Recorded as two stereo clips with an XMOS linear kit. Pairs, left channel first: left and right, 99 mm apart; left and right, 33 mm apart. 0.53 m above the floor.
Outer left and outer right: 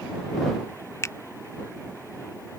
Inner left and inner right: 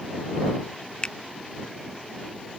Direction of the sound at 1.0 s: 30° left (ahead or behind).